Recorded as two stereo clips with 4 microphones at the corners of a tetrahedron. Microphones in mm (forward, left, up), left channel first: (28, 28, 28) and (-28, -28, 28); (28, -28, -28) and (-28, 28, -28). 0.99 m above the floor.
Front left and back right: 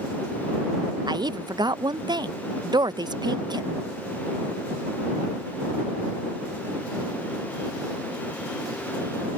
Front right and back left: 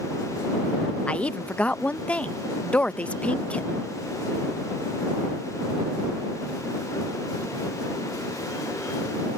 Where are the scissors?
No scissors in this recording.